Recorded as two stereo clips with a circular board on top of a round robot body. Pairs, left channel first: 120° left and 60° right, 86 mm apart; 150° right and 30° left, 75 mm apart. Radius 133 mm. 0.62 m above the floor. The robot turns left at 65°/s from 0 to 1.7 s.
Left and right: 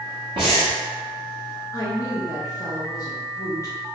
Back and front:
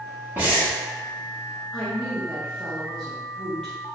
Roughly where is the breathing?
Ahead right.